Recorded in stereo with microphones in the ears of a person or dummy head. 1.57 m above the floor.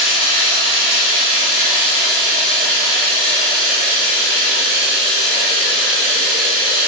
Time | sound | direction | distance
0.0 | running water | 65° right (ahead or behind) | 1.4 m